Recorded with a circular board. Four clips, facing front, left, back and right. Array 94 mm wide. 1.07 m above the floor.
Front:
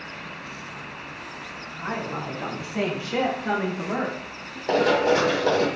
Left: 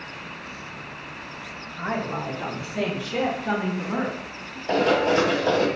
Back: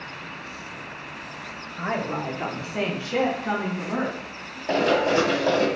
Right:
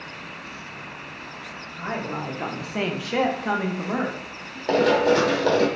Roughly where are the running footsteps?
Right.